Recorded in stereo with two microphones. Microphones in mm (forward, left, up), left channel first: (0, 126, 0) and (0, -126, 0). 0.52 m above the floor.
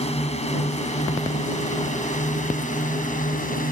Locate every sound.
0.0 s a drone: 25° left (ahead or behind); by 3.7 s 35° left (ahead or behind)